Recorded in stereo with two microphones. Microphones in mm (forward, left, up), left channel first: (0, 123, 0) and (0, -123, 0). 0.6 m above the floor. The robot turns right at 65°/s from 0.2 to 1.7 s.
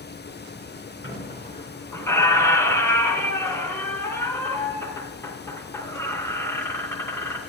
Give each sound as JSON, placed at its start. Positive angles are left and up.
{"t": 1.0, "sound": "a squeak", "azimuth_deg": 125, "distance_m": 2.0}